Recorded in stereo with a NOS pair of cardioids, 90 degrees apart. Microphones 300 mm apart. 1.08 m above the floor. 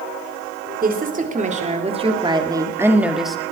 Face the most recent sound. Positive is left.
turn(degrees=0)